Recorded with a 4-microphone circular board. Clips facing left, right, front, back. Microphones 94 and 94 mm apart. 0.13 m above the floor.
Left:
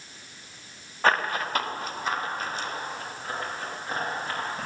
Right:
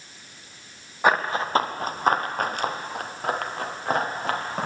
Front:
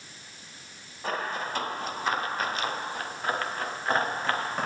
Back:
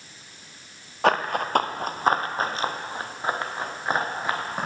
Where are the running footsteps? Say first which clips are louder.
Right 2 dB, back 9 dB; 165° right, 1.1 m; by 4.7 s 100° right, 3 m.